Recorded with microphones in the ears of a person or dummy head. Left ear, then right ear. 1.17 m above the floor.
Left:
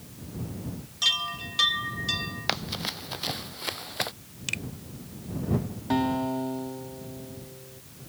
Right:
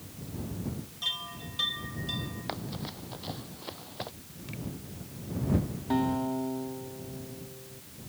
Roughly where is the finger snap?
Left.